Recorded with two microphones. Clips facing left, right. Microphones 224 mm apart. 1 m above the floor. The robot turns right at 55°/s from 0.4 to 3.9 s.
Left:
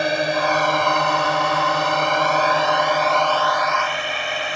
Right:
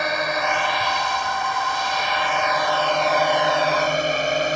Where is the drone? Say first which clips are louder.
Left 4 dB; 30° left (ahead or behind); by 4.6 s 45° right (ahead or behind).